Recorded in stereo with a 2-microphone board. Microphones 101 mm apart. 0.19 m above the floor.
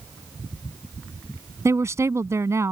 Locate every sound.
1.6 s a woman speaking: 30° right (ahead or behind)